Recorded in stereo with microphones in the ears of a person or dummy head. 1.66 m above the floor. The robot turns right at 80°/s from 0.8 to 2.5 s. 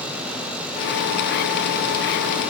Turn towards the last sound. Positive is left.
No sound to turn to.